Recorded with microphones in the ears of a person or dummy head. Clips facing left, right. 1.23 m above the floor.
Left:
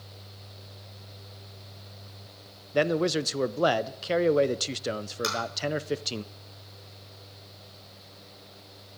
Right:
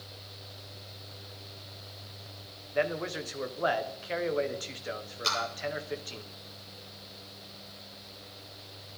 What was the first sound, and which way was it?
A man speaking, 45° left (ahead or behind).